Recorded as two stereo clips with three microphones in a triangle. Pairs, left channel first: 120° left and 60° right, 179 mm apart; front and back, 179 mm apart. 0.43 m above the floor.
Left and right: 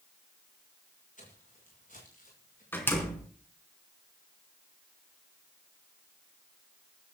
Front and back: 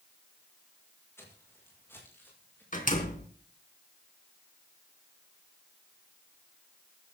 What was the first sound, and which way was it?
Footsteps, 75° left.